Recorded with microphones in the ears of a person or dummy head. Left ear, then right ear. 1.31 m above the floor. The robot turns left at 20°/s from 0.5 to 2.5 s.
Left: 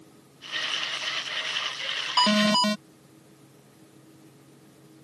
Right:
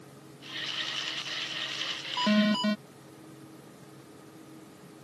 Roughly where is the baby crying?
I don't hear a baby crying.